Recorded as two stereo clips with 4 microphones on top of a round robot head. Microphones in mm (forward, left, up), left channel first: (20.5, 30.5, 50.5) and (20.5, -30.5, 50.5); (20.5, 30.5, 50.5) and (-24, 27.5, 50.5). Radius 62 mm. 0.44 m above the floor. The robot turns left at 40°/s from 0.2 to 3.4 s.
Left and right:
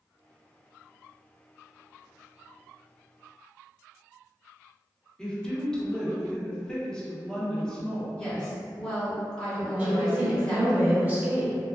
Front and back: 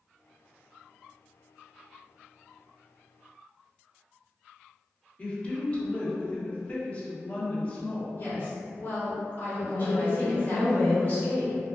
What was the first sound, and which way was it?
A woman speaking, 25° left.